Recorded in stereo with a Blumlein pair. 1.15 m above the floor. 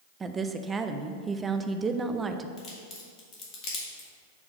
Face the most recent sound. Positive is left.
turn(degrees=35)